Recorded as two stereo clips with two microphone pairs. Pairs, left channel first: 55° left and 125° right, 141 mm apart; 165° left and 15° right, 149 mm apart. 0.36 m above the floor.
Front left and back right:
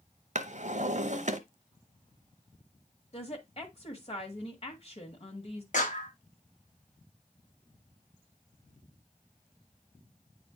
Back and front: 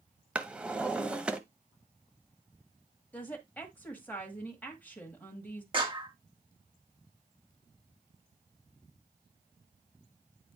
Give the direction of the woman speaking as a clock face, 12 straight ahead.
9 o'clock.